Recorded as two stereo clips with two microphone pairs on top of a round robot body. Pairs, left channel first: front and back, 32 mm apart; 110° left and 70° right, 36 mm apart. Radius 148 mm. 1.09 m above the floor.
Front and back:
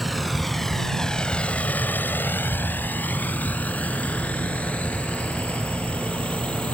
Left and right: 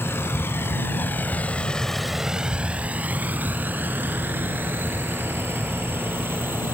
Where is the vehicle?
95° left; by 6.7 s 50° right.